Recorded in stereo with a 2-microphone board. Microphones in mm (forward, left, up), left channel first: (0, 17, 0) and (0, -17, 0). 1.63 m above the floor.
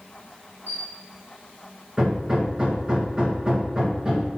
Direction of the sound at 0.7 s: 65° right (ahead or behind).